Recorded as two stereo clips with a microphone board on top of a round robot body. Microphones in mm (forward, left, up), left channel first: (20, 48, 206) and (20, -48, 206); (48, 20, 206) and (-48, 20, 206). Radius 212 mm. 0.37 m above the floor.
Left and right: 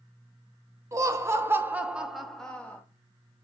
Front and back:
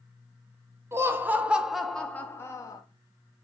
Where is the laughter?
130° right, 1.0 m; by 2.8 s 25° left, 0.9 m.